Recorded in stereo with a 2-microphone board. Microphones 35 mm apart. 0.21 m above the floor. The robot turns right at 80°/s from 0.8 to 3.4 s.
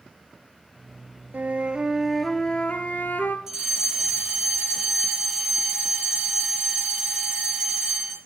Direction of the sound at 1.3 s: 65° right.